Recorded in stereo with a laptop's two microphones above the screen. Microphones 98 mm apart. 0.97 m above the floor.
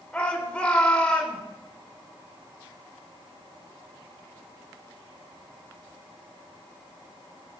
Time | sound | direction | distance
0.1 | a shout | 10° left (ahead or behind) | 3.5 m